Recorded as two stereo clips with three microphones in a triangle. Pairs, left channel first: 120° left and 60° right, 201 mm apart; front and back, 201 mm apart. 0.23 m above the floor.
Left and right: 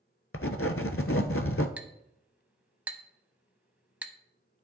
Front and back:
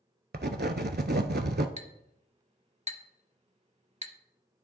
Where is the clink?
140° right, 0.7 m.